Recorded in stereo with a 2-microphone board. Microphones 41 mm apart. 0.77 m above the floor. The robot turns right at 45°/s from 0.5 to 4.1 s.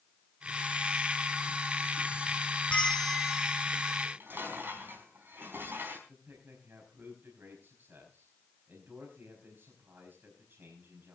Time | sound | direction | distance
2.7 | a bell | 155° left | 2 m
4.0 | dishes clattering | 60° right (ahead or behind) | 4 m
6.1 | a man speaking | 55° right (ahead or behind) | 5 m